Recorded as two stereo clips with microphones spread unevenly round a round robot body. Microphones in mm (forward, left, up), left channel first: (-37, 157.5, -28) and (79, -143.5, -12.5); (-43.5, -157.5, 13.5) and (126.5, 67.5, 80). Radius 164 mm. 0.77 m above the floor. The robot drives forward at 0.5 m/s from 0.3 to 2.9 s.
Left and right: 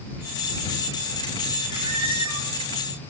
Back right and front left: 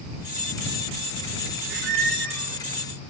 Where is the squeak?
5° left, 2.0 m.